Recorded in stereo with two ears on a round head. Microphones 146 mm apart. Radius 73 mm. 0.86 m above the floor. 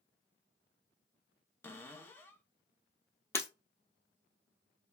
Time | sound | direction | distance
1.6 | a cupboard door | 15° left (ahead or behind) | 0.6 m
3.3 | breaking glass | 15° left (ahead or behind) | 1.2 m